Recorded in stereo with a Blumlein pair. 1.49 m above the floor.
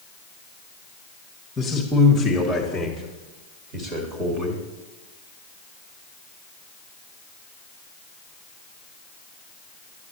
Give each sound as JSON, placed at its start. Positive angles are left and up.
{"t": 1.6, "sound": "a man speaking", "azimuth_deg": 15, "distance_m": 1.3}